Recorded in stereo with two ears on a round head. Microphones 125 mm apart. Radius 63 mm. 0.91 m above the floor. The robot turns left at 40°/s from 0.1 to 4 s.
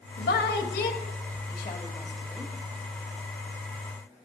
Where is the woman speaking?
80° left, 1.3 m; by 2.5 s centre (ahead or behind), 1.3 m.